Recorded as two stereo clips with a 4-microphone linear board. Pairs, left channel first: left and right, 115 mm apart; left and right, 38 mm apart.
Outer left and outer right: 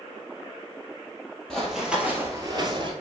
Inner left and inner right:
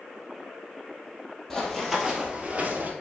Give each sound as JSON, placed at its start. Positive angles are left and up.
{"t": 1.5, "sound": "running footsteps", "side_deg": 5, "distance_m": 2.0}